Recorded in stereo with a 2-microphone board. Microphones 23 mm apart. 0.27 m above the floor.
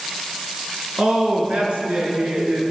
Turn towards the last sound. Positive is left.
turn(degrees=-70)  # may be behind; listen again after turning